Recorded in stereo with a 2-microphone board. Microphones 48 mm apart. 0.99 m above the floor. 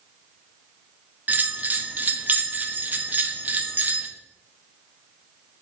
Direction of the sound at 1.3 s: 35° right (ahead or behind).